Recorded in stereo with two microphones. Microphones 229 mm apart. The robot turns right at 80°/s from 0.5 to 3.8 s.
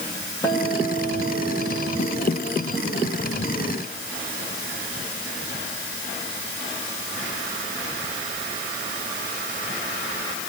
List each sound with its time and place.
0.4 s a guitar: 165° left, 5.5 m; by 2.8 s 15° right, 5.5 m